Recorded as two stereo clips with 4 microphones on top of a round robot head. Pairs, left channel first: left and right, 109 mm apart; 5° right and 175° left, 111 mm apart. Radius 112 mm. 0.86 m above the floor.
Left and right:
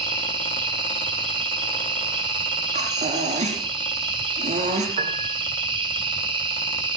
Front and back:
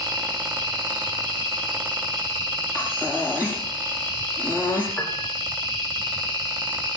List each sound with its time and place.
0.0 s an insect: 135° right, 5 m
2.8 s breathing: 105° right, 5.5 m
5.0 s a piano: 90° right, 3 m